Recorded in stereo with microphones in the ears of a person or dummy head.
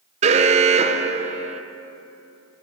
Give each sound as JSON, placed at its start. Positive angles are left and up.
{"t": 0.2, "sound": "an alarm", "side_deg": -30, "distance_m": 1.7}